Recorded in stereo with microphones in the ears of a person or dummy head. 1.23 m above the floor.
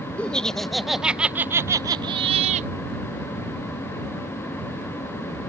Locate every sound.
0.2 s laughter: 5° left (ahead or behind); by 2.7 s 40° right (ahead or behind)